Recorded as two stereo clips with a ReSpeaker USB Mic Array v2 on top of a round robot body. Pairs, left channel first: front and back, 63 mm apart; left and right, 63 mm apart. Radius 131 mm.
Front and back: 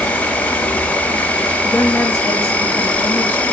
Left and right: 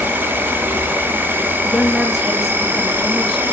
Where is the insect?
55° right, 0.7 m.